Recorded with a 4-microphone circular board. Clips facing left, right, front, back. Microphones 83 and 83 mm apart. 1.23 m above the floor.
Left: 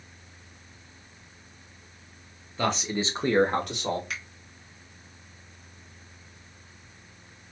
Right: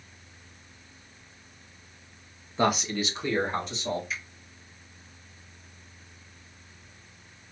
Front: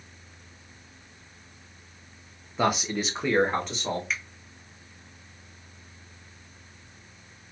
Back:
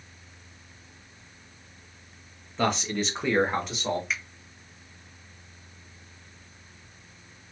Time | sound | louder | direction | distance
2.6 | a man speaking | right 2 dB, front 1 dB | 70° right | 0.5 m
4.1 | a finger snap | even, even | 90° left | 0.7 m